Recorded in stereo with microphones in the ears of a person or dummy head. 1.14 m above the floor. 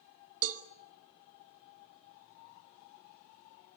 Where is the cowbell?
65° right (ahead or behind), 1.1 m.